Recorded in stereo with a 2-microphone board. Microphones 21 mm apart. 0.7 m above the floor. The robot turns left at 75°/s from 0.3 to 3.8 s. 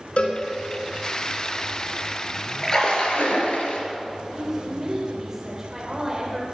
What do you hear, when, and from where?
0.2 s a cowbell: 55° left (ahead or behind), 3.5 m; by 0.4 s 45° left (ahead or behind), 3.5 m
2.6 s a splash: 160° left, 3.5 m; by 3.8 s 75° left, 3.5 m
4.3 s a woman speaking: 15° right (ahead or behind), 3 m